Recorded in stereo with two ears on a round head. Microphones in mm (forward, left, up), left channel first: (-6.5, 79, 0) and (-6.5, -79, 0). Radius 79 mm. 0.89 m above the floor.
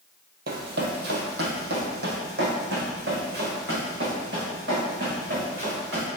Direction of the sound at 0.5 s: 60° right (ahead or behind).